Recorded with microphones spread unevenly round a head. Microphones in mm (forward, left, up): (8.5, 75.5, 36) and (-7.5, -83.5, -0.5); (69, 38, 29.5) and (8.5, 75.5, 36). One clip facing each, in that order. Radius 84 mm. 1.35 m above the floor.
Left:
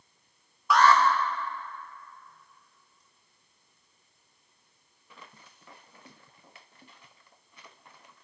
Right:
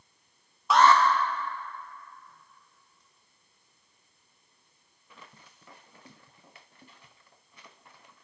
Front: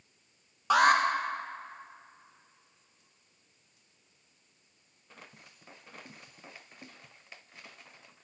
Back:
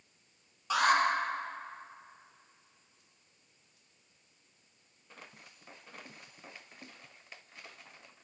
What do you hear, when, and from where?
0.7 s an alarm: 40° right, 0.9 m